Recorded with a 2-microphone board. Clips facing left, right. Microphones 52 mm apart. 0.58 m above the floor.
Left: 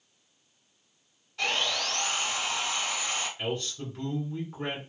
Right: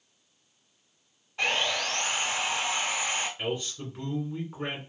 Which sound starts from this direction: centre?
A man speaking, at 3.4 s.